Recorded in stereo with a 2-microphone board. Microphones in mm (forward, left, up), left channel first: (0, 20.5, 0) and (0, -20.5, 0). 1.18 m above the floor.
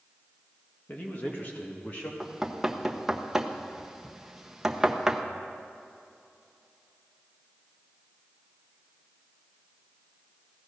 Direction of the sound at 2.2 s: 10° right (ahead or behind).